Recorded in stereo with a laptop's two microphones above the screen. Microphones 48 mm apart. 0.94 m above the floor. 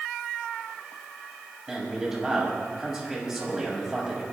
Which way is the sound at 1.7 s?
10° right (ahead or behind).